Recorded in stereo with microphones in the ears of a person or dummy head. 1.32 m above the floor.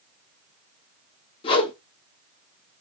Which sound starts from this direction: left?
A whoosh, at 1.4 s.